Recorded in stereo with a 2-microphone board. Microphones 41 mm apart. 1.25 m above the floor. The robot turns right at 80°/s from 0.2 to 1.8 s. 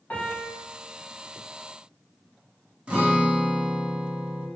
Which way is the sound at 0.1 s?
40° left (ahead or behind).